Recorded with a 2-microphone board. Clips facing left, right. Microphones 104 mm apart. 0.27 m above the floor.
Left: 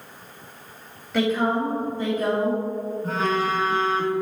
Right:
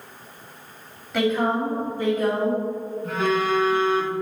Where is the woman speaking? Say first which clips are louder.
Even; centre (ahead or behind), 1.6 m; by 2.6 s 40° left (ahead or behind), 2 m.